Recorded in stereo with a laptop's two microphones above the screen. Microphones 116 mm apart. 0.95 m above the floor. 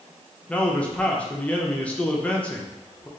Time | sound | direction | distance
0.5 | a man speaking | 10° left (ahead or behind) | 0.5 m